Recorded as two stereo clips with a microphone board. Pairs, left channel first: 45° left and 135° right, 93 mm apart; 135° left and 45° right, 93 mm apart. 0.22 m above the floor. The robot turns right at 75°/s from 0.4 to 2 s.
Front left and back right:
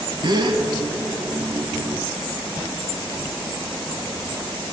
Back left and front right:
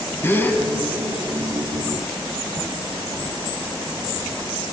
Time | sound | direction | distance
0.2 | a gasp | 160° right | 0.6 m